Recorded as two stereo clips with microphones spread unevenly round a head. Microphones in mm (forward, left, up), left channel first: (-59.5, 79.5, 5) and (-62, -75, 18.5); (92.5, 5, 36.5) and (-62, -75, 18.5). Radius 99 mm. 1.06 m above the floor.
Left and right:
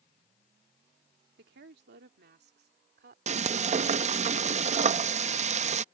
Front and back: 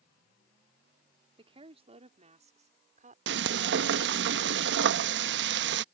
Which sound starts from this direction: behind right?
Frying, at 3.3 s.